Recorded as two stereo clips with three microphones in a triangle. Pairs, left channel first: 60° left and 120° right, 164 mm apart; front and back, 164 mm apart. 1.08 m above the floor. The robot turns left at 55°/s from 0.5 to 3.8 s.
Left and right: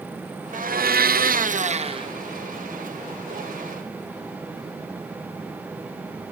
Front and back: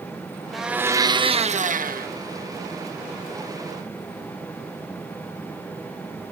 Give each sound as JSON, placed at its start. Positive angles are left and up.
{"t": 0.5, "sound": "a blender", "azimuth_deg": -90, "distance_m": 0.5}